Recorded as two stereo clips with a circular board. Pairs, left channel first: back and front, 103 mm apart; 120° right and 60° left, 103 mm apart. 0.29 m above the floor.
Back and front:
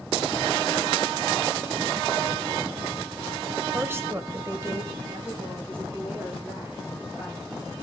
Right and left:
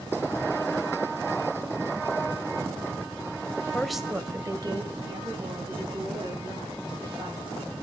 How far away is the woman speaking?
About 1.4 m.